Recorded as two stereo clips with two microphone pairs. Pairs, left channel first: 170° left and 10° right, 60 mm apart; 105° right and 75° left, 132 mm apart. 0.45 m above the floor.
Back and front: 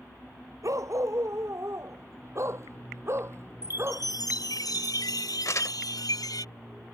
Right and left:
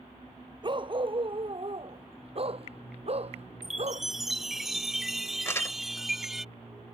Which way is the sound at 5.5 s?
175° right.